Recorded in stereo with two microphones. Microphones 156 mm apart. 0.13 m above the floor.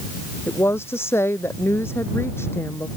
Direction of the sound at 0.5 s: 15° left (ahead or behind).